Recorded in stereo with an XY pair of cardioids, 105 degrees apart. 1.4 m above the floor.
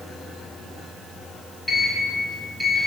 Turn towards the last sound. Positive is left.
turn(degrees=20)